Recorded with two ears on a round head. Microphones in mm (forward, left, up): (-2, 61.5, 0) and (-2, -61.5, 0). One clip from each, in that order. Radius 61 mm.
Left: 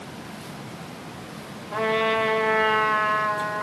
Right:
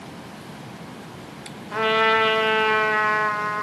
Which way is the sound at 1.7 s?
50° right (ahead or behind).